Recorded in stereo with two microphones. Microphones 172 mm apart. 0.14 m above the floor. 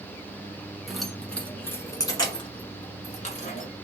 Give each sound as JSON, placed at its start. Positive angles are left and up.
{"t": 0.9, "sound": "keys jangling", "side_deg": 0, "distance_m": 1.4}